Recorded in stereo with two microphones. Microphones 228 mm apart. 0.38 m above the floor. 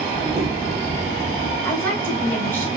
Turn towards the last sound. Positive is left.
turn(degrees=10)  # may be behind; listen again after turning